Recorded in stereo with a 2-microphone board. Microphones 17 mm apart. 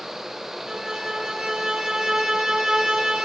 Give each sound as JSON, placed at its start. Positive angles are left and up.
{"t": 0.7, "sound": "a violin", "side_deg": -45, "distance_m": 0.6}